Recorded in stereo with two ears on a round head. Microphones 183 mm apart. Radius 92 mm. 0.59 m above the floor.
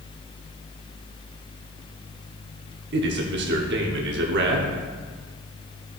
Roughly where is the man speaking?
Right.